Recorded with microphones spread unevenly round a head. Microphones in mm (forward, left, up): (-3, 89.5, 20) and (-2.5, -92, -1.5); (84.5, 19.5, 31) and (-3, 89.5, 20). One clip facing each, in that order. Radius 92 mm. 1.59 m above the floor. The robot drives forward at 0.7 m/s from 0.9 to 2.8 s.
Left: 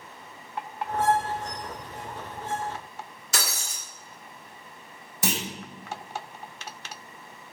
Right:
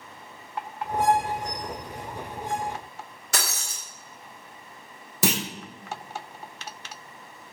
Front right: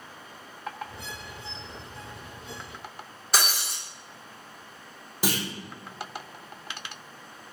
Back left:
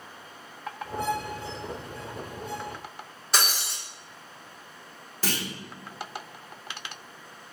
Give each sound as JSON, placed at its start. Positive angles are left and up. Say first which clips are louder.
{"t": 3.3, "sound": "breaking glass", "louder": "right 1 dB, even", "azimuth_deg": -130, "distance_m": 1.5}
{"t": 5.2, "sound": "a clunk", "louder": "right 4 dB, front right 3 dB", "azimuth_deg": -120, "distance_m": 0.6}